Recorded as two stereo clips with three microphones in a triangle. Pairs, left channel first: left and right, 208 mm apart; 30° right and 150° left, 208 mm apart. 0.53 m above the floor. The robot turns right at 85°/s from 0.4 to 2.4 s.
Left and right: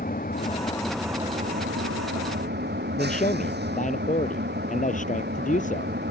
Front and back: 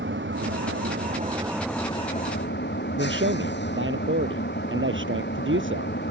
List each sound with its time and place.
0.0 s an engine running: 130° left; by 6.1 s 60° right
3.0 s a man speaking: 140° left